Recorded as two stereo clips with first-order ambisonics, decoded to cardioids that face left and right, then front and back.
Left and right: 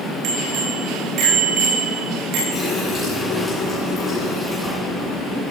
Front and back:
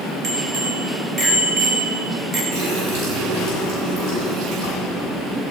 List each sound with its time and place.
0.2 s a bicycle bell: 120° right, 5 m
2.5 s a running tap: 165° left, 8.5 m